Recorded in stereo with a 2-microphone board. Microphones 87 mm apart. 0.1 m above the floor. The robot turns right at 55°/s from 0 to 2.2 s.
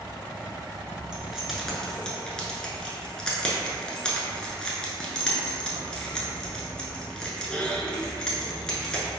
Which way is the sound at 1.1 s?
10° right (ahead or behind).